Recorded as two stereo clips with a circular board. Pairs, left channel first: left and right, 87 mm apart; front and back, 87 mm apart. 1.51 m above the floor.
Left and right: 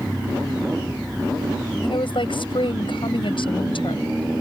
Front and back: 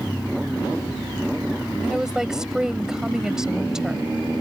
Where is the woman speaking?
95° left.